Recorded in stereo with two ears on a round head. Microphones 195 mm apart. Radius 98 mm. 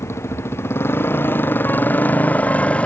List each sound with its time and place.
0.0 s a motorcycle: 10° left (ahead or behind); by 2.9 s 5° left (ahead or behind)